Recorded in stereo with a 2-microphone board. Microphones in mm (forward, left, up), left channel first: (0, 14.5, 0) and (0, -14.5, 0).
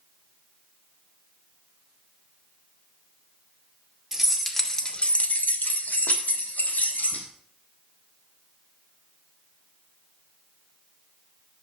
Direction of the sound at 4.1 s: 10° right (ahead or behind).